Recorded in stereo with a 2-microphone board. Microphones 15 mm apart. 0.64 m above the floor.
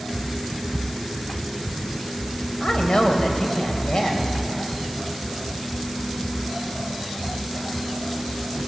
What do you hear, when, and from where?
2.6 s a woman speaking: 60° left (ahead or behind), 3 m